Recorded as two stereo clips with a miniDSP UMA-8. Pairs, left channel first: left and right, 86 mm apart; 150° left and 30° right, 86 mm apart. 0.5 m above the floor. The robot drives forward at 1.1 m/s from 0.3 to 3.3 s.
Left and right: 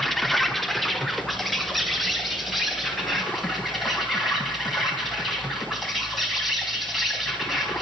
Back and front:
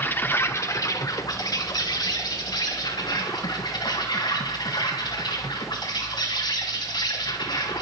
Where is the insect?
175° left, 1.1 m; by 7.8 s straight behind, 4 m.